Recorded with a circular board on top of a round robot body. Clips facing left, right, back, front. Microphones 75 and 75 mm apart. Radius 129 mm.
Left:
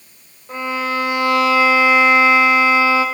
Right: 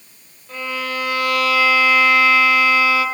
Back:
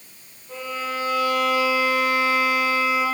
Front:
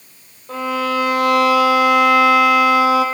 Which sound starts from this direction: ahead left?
A violin, at 0.5 s.